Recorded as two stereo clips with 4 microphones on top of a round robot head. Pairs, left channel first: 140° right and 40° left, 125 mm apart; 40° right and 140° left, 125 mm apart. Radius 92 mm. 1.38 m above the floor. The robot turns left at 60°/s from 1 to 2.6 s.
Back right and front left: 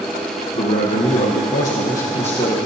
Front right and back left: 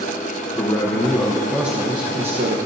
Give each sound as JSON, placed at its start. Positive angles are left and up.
{"t": 0.6, "sound": "a man speaking", "azimuth_deg": -105, "distance_m": 1.1}